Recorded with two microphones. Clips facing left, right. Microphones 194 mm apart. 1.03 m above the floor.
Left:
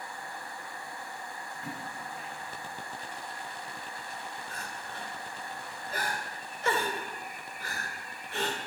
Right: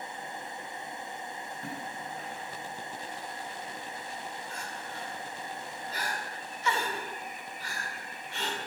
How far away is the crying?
About 2 m.